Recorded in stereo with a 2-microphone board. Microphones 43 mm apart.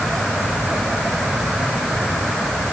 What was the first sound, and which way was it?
Only background noise.